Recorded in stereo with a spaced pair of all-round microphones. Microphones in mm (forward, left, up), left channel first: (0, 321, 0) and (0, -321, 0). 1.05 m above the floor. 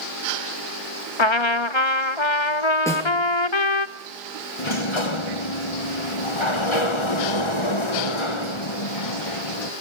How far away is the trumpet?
About 0.8 m.